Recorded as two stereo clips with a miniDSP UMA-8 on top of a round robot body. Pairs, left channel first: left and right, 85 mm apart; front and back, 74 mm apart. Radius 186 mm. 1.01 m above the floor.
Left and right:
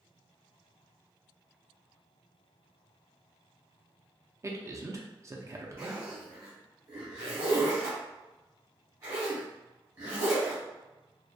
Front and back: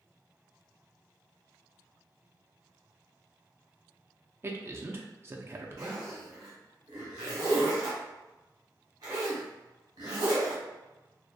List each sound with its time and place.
4.4 s a man speaking: 130° right, 0.6 m
5.8 s a zipper: 150° right, 0.8 m